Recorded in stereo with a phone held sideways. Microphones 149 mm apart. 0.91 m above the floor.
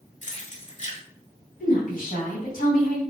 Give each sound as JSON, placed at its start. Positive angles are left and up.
{"t": 0.2, "sound": "keys jangling", "side_deg": 55, "distance_m": 0.8}
{"t": 1.6, "sound": "a woman speaking", "side_deg": 70, "distance_m": 1.2}